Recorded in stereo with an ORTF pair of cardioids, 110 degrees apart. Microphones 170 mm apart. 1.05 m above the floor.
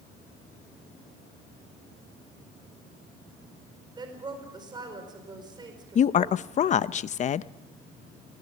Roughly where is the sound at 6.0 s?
Ahead left.